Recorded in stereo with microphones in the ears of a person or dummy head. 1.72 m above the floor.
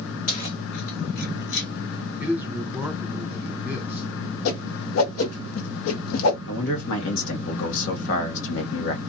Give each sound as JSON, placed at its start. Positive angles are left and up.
{"t": 0.3, "sound": "keys jangling", "side_deg": 35, "distance_m": 1.1}
{"t": 2.2, "sound": "a man speaking", "side_deg": -15, "distance_m": 1.4}
{"t": 4.5, "sound": "a whoosh", "side_deg": 75, "distance_m": 1.0}
{"t": 6.5, "sound": "a man speaking", "side_deg": 65, "distance_m": 1.3}